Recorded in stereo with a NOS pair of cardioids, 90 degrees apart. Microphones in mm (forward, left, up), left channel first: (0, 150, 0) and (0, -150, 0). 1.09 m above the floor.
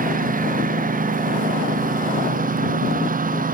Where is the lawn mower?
30° right.